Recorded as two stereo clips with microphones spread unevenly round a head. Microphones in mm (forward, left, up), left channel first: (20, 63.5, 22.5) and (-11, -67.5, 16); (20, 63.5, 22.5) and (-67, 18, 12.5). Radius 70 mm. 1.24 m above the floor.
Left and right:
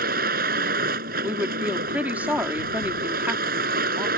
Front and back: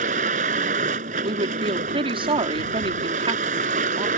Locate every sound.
0.0 s a vehicle: 135° right
1.2 s a woman speaking: 175° left